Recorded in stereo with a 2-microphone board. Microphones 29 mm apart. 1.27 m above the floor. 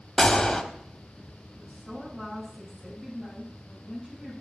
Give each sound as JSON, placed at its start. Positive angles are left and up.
{"t": 0.2, "sound": "a gunshot", "side_deg": 25, "distance_m": 1.1}
{"t": 1.6, "sound": "a woman speaking", "side_deg": -35, "distance_m": 6.5}